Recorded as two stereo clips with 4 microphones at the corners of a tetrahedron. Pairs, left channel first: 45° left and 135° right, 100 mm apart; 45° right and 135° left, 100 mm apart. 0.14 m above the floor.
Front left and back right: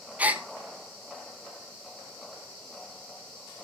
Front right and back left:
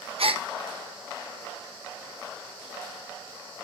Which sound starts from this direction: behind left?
A gasp, at 0.2 s.